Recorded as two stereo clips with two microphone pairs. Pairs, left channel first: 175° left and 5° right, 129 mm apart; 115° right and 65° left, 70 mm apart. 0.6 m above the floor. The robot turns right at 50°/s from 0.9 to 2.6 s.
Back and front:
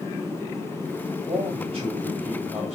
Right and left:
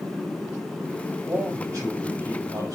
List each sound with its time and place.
1.3 s a man speaking: 15° left, 3 m; by 2.8 s 80° left, 3 m